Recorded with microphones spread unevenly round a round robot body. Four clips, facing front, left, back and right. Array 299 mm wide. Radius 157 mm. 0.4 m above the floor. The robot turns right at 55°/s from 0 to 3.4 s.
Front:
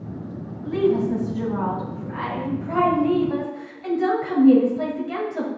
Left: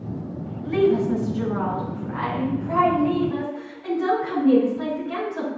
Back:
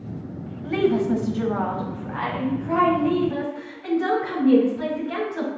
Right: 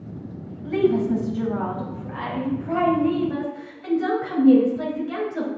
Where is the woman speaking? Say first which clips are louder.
Left 1 dB, even; 155° left, 2 m; by 5.5 s 50° right, 2 m.